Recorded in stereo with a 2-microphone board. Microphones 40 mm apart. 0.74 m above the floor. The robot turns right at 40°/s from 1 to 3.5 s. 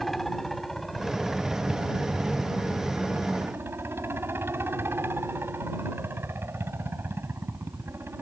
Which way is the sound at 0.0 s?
175° left.